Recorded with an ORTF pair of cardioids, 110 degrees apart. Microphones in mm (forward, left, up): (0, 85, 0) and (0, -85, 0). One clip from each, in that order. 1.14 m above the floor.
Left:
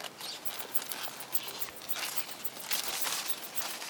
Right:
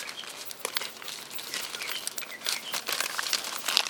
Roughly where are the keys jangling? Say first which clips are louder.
Right 7 dB; ahead left.